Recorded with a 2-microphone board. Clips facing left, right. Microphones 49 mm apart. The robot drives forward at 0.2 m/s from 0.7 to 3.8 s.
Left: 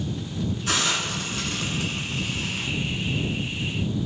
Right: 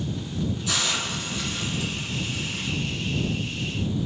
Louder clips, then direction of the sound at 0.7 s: Left 5 dB; 50° left (ahead or behind).